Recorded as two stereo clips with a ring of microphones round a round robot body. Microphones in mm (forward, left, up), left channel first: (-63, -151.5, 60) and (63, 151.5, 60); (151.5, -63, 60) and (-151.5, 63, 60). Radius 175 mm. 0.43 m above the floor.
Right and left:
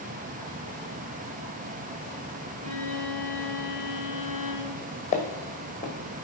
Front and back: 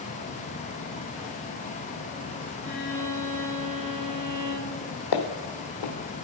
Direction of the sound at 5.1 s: 45° right.